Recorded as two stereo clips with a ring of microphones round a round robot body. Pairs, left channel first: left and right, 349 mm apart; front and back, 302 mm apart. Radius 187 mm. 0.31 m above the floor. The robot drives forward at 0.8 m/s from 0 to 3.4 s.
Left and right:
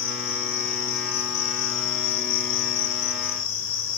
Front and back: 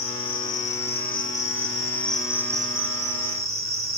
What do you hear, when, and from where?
0.0 s an insect: 45° left, 2.5 m; by 4.0 s 120° left, 2.0 m